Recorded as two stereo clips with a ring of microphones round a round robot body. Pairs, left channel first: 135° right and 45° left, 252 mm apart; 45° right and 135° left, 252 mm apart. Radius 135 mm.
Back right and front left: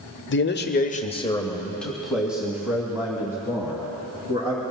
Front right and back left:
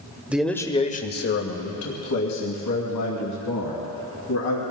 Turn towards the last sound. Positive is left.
turn(degrees=-30)